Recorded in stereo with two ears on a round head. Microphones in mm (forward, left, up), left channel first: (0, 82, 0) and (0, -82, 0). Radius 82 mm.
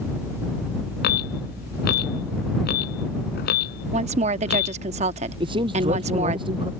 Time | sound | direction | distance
1.0 | an alarm | 60° left (ahead or behind) | ?
3.9 | a woman speaking | 35° right (ahead or behind) | ?
5.4 | a man speaking | 30° right (ahead or behind) | ?